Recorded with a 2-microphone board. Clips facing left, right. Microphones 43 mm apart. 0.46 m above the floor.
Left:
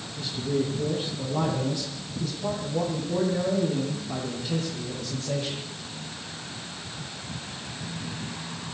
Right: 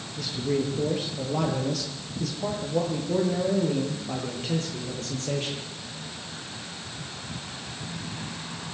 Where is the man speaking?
85° right, 8.5 m; by 5.6 s 75° right (ahead or behind), 10.5 m.